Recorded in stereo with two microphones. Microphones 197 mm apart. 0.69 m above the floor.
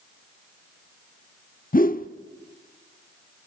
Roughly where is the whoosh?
Left.